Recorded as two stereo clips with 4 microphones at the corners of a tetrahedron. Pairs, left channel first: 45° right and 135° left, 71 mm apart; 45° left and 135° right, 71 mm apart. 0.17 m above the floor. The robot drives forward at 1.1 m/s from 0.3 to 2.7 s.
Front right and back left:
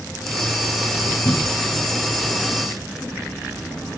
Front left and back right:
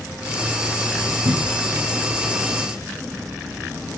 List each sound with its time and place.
1.2 s a cupboard door: 105° right; by 1.8 s 115° right